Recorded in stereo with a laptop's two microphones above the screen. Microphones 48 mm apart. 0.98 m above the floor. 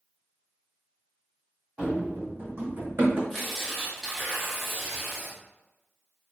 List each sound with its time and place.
1.8 s running footsteps: 25° right (ahead or behind), 1.8 m; by 3.2 s 40° right (ahead or behind), 3 m
3.3 s tearing paper: centre (ahead or behind), 1.3 m